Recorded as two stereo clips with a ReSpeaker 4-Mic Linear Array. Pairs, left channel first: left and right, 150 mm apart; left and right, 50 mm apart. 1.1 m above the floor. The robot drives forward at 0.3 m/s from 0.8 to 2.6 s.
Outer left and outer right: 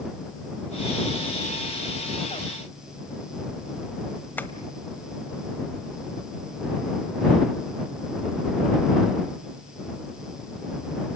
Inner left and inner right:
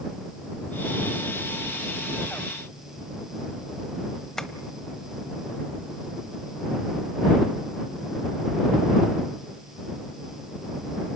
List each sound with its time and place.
4.4 s tapping: 10° left (ahead or behind), 1.2 m